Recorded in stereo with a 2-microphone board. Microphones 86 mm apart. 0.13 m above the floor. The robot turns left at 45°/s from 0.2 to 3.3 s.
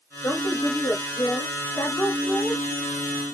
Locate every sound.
0.2 s a woman speaking: 130° left, 1.7 m; by 2.6 s 20° left, 1.7 m